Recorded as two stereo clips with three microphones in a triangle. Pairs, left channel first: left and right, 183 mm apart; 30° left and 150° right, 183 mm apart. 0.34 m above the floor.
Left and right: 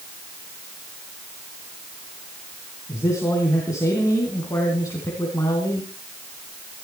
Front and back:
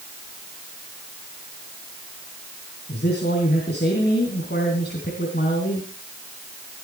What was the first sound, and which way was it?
A man speaking, 20° left.